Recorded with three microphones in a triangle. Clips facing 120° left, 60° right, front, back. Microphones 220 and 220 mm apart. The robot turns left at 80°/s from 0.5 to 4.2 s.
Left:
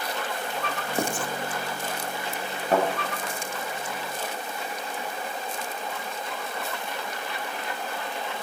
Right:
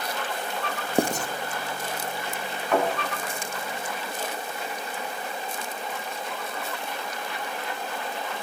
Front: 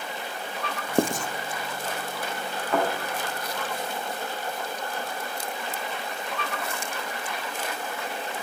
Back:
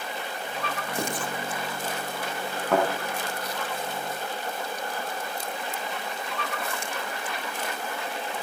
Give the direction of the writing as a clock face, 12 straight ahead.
12 o'clock.